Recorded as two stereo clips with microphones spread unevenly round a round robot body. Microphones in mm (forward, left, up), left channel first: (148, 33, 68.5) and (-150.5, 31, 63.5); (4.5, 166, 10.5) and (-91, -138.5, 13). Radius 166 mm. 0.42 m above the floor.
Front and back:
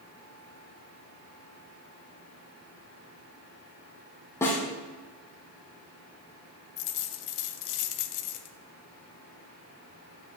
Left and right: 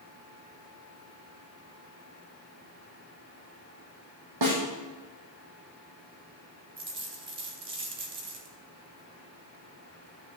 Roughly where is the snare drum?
Right.